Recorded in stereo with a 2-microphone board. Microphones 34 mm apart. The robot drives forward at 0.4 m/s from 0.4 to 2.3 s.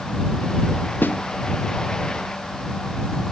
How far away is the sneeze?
No sneeze in this recording.